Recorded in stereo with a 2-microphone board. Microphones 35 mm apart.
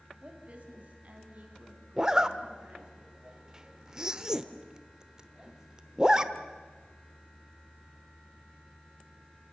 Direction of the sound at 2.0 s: 25° right (ahead or behind).